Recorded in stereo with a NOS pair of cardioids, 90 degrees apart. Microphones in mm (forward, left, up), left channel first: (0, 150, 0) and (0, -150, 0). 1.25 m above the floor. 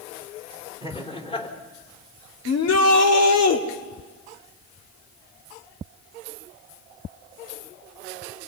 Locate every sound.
0.8 s laughter: 20° left, 4 m
2.5 s a shout: 65° left, 2.5 m